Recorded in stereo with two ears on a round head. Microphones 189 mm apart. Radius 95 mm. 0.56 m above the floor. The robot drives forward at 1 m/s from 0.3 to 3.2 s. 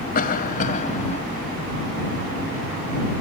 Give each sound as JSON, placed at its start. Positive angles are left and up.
{"t": 0.1, "sound": "a cough", "side_deg": 45}